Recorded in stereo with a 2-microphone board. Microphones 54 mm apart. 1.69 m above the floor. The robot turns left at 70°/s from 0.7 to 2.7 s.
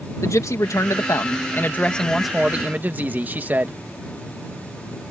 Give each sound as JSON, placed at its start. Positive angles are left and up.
{"t": 0.2, "sound": "a man speaking", "azimuth_deg": 105}